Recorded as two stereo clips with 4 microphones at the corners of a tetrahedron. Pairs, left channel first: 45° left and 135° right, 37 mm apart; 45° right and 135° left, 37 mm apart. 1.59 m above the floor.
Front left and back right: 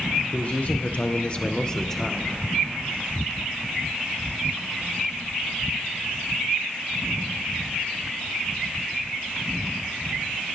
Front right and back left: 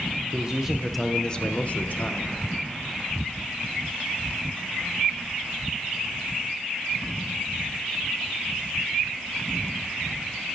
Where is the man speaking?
85° left, 0.7 m; by 2.3 s 40° right, 0.9 m.